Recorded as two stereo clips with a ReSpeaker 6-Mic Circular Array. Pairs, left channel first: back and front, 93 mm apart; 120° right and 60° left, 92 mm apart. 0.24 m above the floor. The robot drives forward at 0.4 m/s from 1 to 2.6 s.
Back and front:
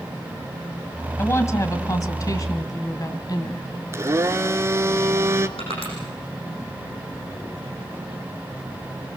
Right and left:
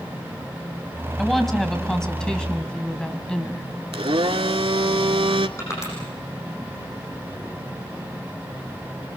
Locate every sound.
1.2 s a woman speaking: 155° left, 1.7 m; by 3.7 s 165° left, 2 m
3.9 s a blender: 55° left, 0.8 m
5.6 s crushing: straight behind, 8.5 m